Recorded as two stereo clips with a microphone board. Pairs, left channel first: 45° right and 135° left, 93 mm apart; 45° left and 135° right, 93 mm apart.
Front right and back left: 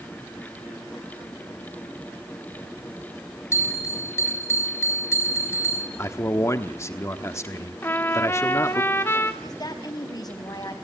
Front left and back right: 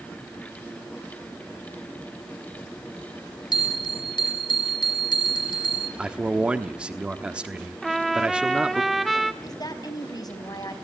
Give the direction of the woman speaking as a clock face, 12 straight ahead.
12 o'clock.